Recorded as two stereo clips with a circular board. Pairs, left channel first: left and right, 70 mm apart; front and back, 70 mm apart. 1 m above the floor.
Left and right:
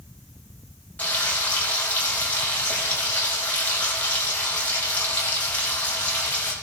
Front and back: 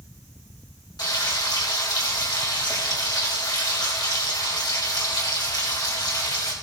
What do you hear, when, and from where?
1.0 s frying: 25° left, 4.5 m